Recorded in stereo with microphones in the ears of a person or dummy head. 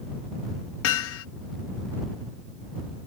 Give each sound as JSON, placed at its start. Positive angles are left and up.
{"t": 0.8, "sound": "hammering", "side_deg": 70}